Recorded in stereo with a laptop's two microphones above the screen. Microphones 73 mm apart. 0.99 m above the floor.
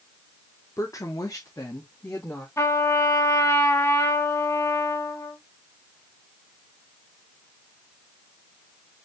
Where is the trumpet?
45° left (ahead or behind), 1.4 m.